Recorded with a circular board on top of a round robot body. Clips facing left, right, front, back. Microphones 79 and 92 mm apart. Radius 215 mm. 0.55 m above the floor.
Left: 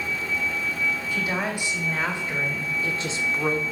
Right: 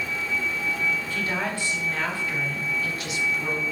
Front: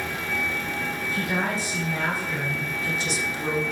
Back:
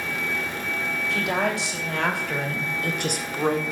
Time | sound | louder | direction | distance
1.1 | a woman speaking | left 1 dB, back 3 dB | 170° left | 3.5 m